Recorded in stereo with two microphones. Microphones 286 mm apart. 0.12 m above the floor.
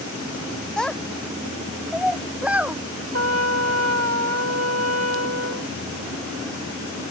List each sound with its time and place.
0.8 s a child speaking: centre (ahead or behind); by 2.8 s 5° right (ahead or behind)
3.1 s a trumpet: 50° right (ahead or behind)